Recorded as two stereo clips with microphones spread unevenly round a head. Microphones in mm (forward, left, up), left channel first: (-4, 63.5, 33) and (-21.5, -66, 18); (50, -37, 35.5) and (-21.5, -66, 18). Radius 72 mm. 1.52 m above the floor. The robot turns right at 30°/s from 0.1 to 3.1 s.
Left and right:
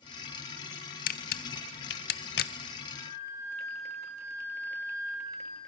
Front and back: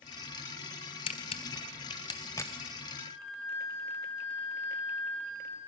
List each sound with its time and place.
1.1 s a camera shutter: 50° left, 0.6 m; by 2.5 s 95° left, 0.6 m
2.9 s a flute: 5° left, 7 m; by 5.6 s 10° left, 7 m